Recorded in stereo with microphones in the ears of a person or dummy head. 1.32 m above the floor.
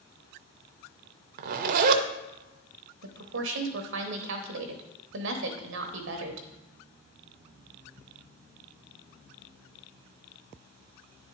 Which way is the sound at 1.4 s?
55° right (ahead or behind).